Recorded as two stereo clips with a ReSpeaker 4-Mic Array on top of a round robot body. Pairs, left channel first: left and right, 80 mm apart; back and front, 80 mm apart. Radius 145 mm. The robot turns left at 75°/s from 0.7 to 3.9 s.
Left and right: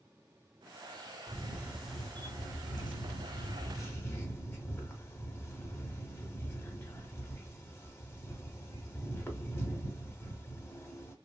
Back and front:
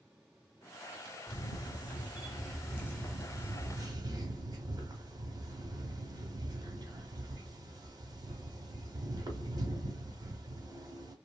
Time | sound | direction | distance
1.3 | a camera shutter | 130° right | 1.0 m